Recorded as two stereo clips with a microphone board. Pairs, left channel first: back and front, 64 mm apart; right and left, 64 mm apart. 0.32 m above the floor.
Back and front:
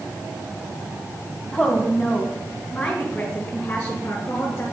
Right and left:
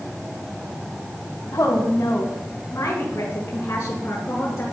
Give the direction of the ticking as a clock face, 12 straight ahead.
No ticking in this recording.